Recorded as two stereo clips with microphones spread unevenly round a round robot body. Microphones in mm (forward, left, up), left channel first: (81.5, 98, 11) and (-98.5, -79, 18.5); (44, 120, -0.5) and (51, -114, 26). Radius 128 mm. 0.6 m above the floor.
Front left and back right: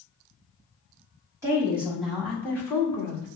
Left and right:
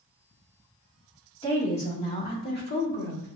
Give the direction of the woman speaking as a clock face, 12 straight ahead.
7 o'clock.